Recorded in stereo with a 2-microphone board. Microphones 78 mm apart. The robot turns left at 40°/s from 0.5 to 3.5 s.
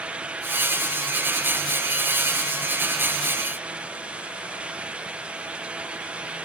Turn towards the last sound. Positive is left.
No sound to turn to.